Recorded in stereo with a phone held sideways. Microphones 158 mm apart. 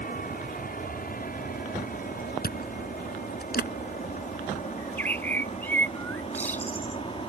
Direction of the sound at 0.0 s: 65° left (ahead or behind).